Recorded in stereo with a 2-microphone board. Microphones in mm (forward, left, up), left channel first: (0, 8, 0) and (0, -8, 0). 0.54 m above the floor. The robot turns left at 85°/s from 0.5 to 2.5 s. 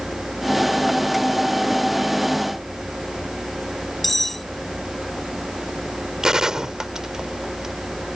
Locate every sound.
4.0 s cutlery clinking: 15° left (ahead or behind)
6.2 s a gunshot: 40° right (ahead or behind)